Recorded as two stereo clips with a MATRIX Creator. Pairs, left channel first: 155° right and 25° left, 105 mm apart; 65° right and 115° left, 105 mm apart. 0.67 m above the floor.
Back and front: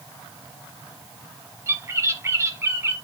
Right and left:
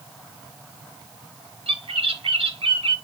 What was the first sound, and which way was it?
A bird, 85° left.